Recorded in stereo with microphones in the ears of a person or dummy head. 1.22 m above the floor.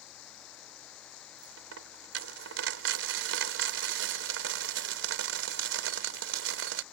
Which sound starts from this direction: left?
Running water, at 0.0 s.